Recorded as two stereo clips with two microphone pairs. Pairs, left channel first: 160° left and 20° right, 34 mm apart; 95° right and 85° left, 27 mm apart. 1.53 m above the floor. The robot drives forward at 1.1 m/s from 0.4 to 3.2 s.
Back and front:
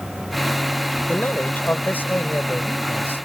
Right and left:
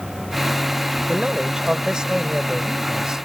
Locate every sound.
1.1 s a man speaking: 145° left; by 3.2 s 155° left